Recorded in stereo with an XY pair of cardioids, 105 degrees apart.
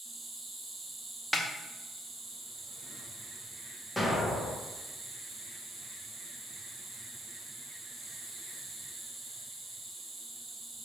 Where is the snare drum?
10° left, 0.6 m.